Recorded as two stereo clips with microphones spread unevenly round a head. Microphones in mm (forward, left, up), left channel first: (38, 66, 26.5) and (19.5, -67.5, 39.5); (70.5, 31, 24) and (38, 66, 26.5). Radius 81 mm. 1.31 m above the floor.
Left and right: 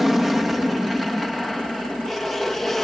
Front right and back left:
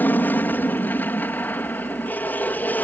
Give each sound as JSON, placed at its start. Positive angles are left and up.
{"t": 0.0, "sound": "an aircraft", "azimuth_deg": -10}